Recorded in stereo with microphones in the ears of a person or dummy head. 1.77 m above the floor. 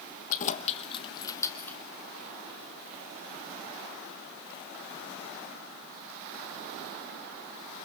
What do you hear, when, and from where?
0.3 s keys jangling: 45° left (ahead or behind), 1.4 m; by 1.8 s 10° left (ahead or behind), 1.6 m